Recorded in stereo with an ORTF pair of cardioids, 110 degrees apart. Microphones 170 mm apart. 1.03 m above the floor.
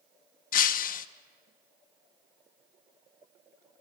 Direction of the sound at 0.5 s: 55° left.